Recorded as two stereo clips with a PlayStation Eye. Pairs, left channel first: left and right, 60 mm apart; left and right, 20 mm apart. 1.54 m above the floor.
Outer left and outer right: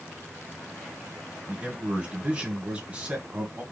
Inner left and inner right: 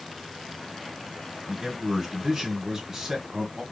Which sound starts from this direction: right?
A man speaking, at 1.5 s.